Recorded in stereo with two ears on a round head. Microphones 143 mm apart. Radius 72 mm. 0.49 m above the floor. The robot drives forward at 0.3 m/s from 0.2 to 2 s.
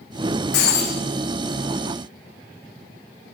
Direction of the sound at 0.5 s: 75° left (ahead or behind).